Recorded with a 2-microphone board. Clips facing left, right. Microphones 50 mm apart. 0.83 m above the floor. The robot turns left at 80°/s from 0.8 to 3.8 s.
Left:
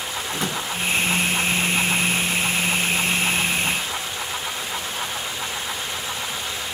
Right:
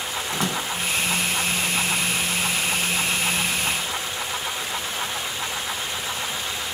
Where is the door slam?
65° right (ahead or behind), 5.5 m.